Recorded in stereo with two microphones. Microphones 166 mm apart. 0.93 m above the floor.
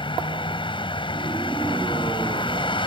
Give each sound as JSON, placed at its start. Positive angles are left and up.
{"t": 0.0, "sound": "a vehicle", "side_deg": 30}